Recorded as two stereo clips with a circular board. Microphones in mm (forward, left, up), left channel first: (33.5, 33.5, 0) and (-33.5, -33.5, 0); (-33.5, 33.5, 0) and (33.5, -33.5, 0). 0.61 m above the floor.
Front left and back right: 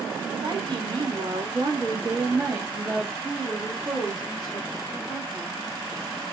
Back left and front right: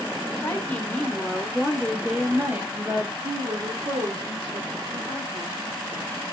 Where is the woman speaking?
165° right, 1.4 m; by 5.6 s 35° right, 2.0 m.